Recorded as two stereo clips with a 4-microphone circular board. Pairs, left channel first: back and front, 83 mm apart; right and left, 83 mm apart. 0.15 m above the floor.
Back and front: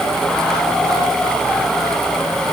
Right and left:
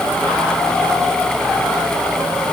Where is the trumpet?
I don't hear a trumpet.